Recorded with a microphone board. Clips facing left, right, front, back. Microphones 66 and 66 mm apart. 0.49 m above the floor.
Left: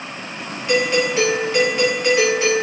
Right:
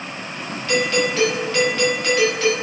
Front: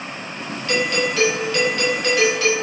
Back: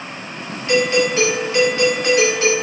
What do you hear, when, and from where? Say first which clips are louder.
0.7 s a doorbell: left 2 dB, back 5 dB; 145° left, 1.4 m